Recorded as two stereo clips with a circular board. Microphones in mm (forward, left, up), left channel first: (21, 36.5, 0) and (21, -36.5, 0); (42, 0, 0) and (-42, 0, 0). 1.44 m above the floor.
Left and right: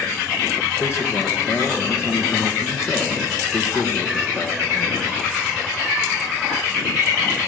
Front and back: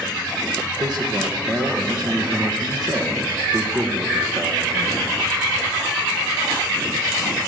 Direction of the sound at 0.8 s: 140° left.